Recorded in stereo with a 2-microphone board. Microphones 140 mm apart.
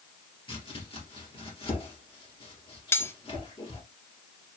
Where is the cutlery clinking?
15° left (ahead or behind), 0.5 m.